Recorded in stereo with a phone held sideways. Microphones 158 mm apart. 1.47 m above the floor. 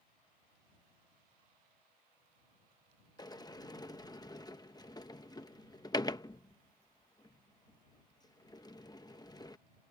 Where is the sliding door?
25° left (ahead or behind).